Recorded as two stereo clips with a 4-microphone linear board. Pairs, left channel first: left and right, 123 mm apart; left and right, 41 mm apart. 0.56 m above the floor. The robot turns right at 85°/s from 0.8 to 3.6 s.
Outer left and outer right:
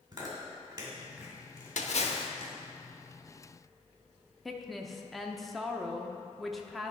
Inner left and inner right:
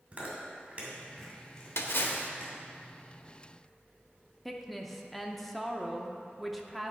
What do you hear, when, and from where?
0.1 s chewing: 40° right (ahead or behind), 2 m; by 2.6 s 55° left (ahead or behind), 2 m
1.8 s a splash: 95° left, 0.8 m; by 2.3 s 145° left, 0.8 m
4.5 s a woman speaking: centre (ahead or behind), 0.7 m